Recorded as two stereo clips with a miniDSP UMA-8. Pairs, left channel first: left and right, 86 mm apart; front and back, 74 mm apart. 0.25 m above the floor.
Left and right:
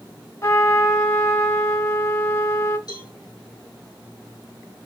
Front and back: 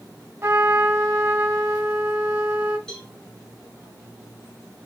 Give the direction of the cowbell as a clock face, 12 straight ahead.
9 o'clock.